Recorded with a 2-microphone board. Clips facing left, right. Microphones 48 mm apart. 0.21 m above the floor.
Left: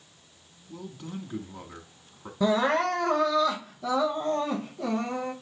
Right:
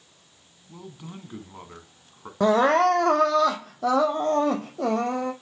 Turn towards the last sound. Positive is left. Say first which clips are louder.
# right 5 dB
turn(degrees=-70)  # may be behind; listen again after turning